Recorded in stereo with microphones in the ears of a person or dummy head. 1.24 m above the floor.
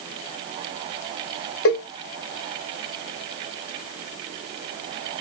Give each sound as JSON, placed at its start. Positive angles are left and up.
{"t": 1.6, "sound": "a cowbell", "side_deg": 70, "distance_m": 2.5}